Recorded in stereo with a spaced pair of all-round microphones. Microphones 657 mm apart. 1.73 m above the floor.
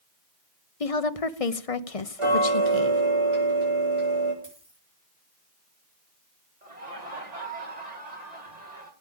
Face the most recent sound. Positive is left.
turn(degrees=-80)